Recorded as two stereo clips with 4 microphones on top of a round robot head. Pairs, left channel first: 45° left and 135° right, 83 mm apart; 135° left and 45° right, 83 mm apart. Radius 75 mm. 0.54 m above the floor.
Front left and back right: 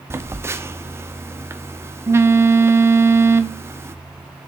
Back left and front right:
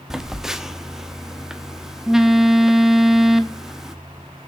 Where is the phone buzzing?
125° right, 1.2 m.